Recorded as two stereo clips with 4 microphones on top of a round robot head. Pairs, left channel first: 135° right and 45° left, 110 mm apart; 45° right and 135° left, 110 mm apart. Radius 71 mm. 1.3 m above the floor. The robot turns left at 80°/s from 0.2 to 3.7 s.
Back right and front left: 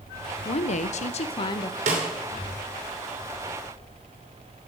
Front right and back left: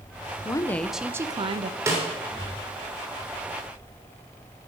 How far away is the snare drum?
About 3 m.